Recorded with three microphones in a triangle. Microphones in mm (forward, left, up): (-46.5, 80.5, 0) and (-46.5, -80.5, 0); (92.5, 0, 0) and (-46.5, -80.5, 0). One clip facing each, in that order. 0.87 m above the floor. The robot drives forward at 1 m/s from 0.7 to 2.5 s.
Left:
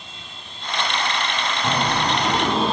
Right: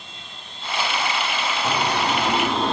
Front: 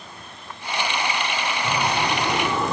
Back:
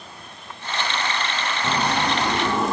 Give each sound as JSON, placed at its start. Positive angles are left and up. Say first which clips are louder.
{"t": 1.6, "sound": "a bird", "louder": "left 1 dB, back 1 dB", "azimuth_deg": 150, "distance_m": 5.0}